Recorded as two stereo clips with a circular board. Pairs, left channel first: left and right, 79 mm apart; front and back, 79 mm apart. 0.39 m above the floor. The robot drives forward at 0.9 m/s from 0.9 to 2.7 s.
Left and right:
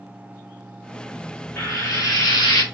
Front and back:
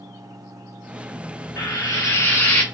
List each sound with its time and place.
1.6 s frying: 40° left, 1.8 m; by 2.6 s 70° left, 1.3 m